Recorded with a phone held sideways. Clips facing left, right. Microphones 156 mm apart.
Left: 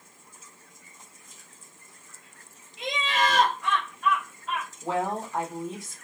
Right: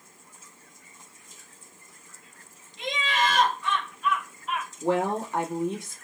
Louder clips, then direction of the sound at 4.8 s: Right 4 dB; 80° right.